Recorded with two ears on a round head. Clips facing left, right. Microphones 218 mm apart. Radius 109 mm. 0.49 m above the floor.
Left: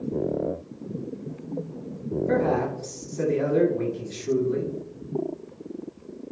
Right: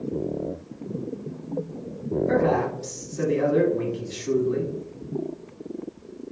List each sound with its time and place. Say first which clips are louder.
2.3 s a man speaking: right 1 dB; 15° right (ahead or behind), 1.2 m